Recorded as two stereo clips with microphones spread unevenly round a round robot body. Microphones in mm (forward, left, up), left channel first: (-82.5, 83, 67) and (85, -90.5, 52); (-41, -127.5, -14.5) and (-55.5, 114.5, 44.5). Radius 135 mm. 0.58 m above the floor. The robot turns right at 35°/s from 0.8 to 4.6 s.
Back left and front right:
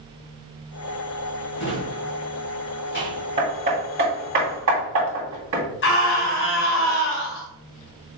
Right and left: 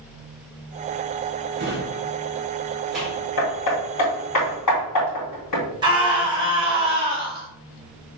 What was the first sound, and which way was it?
A drawer, 135° left.